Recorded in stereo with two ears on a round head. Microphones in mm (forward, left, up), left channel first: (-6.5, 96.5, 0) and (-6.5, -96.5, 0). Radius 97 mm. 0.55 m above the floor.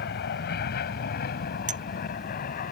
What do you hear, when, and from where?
0.0 s an aircraft: 50° left (ahead or behind); by 2.7 s 40° left (ahead or behind)
1.7 s a clink: 35° right (ahead or behind)